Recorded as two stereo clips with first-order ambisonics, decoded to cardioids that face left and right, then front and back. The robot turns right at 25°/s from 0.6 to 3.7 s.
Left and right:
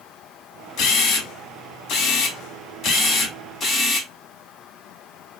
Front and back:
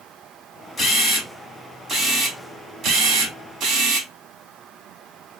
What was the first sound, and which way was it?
A camera shutter, 85° left.